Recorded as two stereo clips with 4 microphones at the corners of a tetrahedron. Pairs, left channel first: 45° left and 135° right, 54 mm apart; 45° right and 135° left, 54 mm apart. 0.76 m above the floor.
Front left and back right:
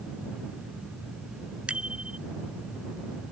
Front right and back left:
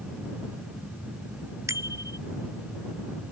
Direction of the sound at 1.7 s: 155° left.